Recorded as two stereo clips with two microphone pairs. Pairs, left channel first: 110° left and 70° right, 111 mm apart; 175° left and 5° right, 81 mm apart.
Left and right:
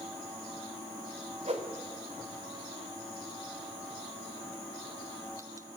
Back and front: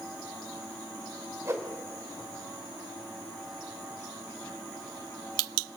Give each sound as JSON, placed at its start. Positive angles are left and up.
{"t": 1.4, "sound": "a whoosh", "azimuth_deg": -60, "distance_m": 2.5}